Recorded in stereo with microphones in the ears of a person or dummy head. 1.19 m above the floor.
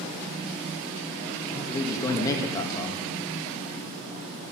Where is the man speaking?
20° left (ahead or behind), 1.8 m.